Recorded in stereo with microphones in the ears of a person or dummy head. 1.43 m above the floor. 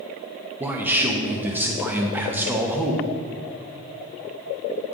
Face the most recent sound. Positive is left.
turn(degrees=-15)  # may be behind; listen again after turning